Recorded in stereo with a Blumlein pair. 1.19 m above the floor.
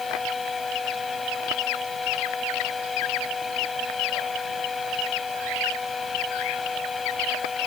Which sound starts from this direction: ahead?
A fan, at 0.0 s.